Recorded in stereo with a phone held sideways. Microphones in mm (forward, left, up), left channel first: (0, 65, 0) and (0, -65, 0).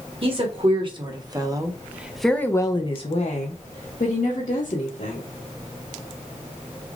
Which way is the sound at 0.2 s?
45° right (ahead or behind).